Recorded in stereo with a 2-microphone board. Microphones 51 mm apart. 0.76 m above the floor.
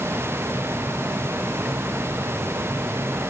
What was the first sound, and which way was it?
Only background noise.